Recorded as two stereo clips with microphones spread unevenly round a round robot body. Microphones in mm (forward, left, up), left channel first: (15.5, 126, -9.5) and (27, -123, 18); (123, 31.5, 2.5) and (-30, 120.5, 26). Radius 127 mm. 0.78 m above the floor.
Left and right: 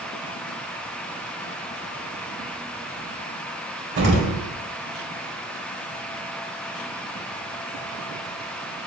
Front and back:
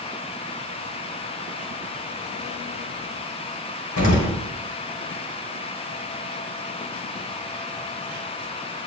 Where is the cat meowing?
I don't hear a cat meowing.